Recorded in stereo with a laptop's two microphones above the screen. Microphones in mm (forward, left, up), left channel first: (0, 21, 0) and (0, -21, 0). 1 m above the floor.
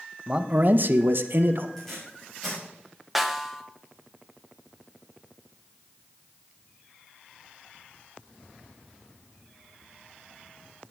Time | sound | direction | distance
0.3 | a man speaking | 20° right (ahead or behind) | 0.9 m
1.8 | tape being pulled | 5° left (ahead or behind) | 6 m
3.1 | a snare drum | centre (ahead or behind) | 0.8 m